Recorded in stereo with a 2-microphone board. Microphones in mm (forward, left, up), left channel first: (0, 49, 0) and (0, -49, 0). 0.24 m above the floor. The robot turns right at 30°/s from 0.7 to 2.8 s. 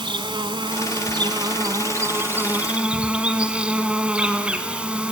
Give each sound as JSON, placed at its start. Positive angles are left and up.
{"t": 0.0, "sound": "an insect", "azimuth_deg": -75, "distance_m": 1.2}